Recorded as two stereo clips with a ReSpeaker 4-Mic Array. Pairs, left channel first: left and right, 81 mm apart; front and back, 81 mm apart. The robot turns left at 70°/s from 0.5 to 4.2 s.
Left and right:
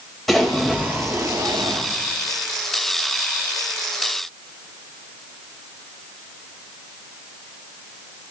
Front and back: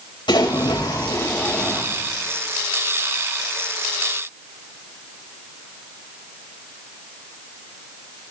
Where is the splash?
Straight ahead, 4 m; by 1.8 s 90° right, 4 m.